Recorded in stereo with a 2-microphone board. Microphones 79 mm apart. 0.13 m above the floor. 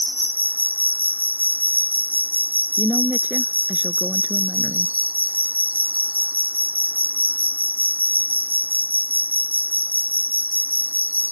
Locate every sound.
0.0 s an insect: 25° right (ahead or behind)
2.8 s a woman speaking: 25° right (ahead or behind)